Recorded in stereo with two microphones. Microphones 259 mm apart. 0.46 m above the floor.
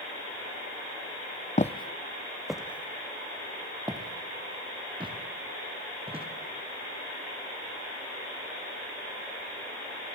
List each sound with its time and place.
1.6 s footsteps: 30° left (ahead or behind), 0.6 m; by 6.3 s 20° right (ahead or behind), 3.5 m